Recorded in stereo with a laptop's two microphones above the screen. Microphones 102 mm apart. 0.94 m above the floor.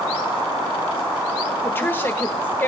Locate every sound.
1.6 s a woman speaking: 20° left (ahead or behind), 1.1 m